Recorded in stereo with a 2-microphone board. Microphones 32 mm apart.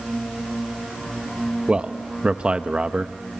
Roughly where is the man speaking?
Right.